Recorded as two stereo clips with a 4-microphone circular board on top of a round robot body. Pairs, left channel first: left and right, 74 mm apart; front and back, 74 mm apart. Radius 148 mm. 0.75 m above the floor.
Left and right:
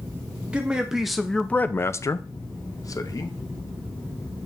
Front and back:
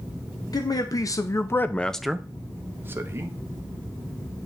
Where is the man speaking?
15° right, 1.1 m; by 3.4 s 130° left, 1.3 m.